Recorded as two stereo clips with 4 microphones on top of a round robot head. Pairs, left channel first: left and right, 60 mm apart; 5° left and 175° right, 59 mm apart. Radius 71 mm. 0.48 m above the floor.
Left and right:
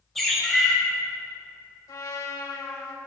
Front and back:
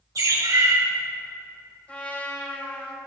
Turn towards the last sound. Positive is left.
turn(degrees=70)